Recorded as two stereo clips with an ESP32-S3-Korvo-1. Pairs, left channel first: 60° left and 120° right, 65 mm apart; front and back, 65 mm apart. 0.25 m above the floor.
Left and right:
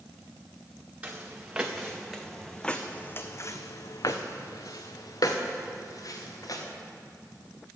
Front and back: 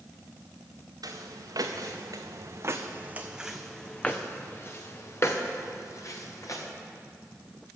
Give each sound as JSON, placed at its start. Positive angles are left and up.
{"t": 1.0, "sound": "footsteps", "azimuth_deg": 170, "distance_m": 1.6}